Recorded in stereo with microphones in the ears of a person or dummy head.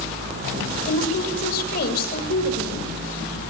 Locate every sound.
0.9 s a woman speaking: 65° left (ahead or behind), 6.5 m